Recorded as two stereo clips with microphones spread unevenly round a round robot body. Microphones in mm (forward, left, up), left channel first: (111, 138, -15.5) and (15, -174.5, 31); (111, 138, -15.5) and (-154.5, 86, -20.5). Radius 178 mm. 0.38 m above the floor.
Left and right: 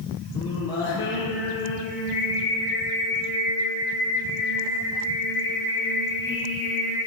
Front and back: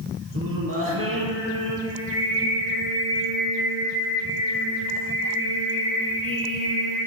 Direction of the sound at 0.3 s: 150° left.